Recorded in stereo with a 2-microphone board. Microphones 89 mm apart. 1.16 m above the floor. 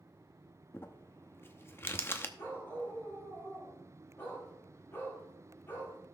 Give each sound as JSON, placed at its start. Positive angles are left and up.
{"t": 0.7, "sound": "crumpling", "side_deg": 30, "distance_m": 0.8}
{"t": 2.4, "sound": "a dog barking", "side_deg": 30, "distance_m": 6.5}